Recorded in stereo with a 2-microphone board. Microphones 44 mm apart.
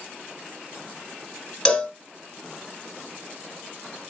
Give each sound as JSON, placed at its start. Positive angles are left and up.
{"t": 1.6, "sound": "a cowbell", "side_deg": 15, "distance_m": 1.5}